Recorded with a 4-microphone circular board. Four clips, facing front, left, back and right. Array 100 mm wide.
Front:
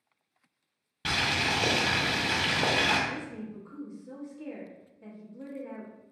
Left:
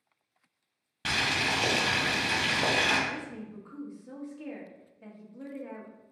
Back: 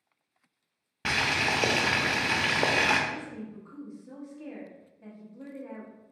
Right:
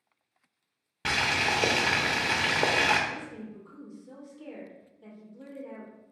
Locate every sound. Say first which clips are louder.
1.1 s boiling: right 2 dB, back 2 dB; 145° right, 0.7 m
3.1 s a woman speaking: even, even; 95° left, 1.4 m